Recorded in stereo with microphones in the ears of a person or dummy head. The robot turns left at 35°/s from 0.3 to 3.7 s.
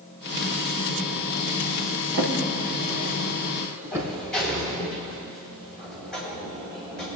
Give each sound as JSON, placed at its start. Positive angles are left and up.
{"t": 2.1, "sound": "a drawer", "side_deg": -65, "distance_m": 1.9}
{"t": 3.9, "sound": "a sliding door", "side_deg": 0, "distance_m": 4.0}